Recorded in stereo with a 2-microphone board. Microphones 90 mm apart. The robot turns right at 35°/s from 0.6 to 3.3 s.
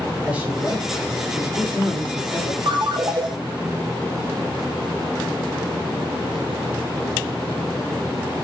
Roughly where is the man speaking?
Behind.